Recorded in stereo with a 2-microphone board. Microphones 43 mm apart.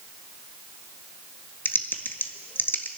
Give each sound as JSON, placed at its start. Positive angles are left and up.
{"t": 1.6, "sound": "typing on a keyboard", "side_deg": 50, "distance_m": 0.9}